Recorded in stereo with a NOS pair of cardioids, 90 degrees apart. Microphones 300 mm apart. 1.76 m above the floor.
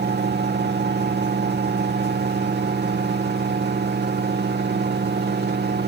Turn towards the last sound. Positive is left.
turn(degrees=-35)